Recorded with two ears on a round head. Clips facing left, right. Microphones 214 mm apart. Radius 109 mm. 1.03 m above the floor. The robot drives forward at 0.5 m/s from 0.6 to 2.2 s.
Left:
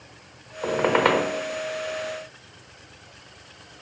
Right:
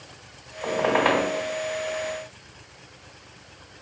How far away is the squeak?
About 1.1 m.